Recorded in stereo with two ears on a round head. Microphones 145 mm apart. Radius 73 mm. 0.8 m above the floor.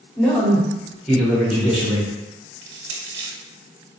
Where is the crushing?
65° right (ahead or behind), 1.0 m.